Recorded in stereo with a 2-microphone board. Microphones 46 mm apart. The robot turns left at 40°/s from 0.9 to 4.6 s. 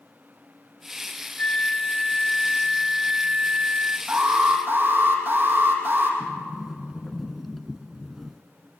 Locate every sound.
1.4 s a flute: 45° left, 1.4 m; by 4.0 s 60° right, 1.4 m
4.1 s an alarm: 20° right (ahead or behind), 5 m; by 6.1 s 40° right (ahead or behind), 5 m
6.2 s a sliding door: centre (ahead or behind), 1.1 m